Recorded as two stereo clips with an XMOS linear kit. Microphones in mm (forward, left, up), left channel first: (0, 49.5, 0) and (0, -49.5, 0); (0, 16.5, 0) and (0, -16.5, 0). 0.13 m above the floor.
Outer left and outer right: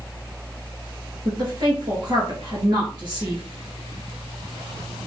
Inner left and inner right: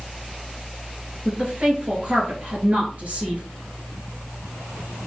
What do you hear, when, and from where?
1.2 s a woman speaking: 50° right (ahead or behind), 2.5 m